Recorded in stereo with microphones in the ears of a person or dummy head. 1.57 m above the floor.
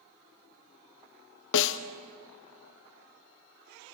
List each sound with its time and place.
1.5 s a snare drum: 75° left (ahead or behind), 0.9 m